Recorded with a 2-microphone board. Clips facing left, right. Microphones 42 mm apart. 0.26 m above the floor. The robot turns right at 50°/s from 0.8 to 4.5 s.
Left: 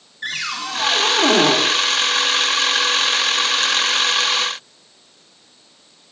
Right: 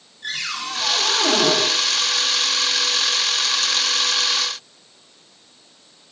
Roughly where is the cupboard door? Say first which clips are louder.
Left 2 dB; ahead left.